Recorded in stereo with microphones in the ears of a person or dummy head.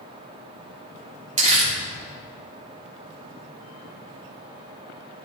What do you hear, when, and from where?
1.4 s crumpling: 30° right (ahead or behind), 1.7 m